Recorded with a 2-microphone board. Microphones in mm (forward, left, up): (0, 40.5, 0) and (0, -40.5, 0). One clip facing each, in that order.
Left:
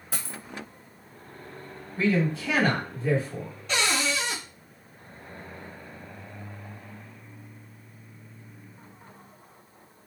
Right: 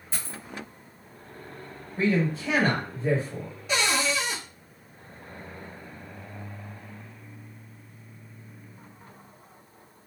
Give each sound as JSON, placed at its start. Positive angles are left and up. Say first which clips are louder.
{"t": 0.1, "sound": "a dropped coin", "louder": "left 1 dB", "side_deg": 65, "distance_m": 0.9}
{"t": 2.0, "sound": "a man speaking", "louder": "even", "side_deg": -30, "distance_m": 2.5}
{"t": 3.7, "sound": "a cupboard door", "louder": "right 1 dB", "side_deg": -10, "distance_m": 1.5}